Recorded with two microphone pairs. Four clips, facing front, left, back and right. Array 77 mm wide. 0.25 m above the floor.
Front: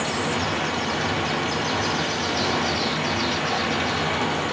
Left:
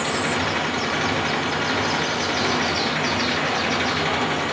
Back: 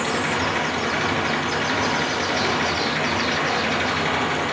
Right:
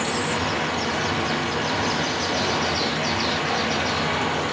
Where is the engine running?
150° left, 3 m.